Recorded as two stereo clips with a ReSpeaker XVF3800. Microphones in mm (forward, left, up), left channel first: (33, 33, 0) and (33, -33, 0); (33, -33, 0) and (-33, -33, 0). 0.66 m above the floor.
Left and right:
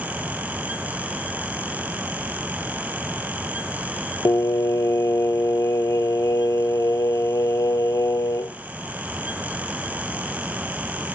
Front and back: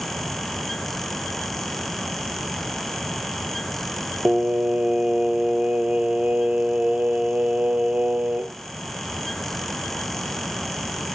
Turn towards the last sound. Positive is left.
turn(degrees=110)